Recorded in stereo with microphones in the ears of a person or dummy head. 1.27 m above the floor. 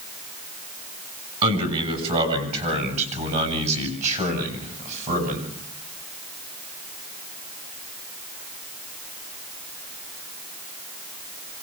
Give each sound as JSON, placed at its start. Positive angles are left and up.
{"t": 1.4, "sound": "a man speaking", "side_deg": -30, "distance_m": 6.0}